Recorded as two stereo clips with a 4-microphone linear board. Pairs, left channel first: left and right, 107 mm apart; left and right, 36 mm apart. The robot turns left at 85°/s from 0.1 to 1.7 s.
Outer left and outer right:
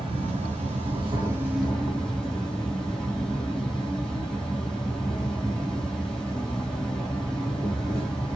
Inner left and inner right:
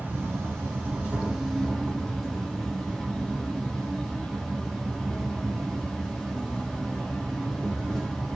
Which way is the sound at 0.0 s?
50° right.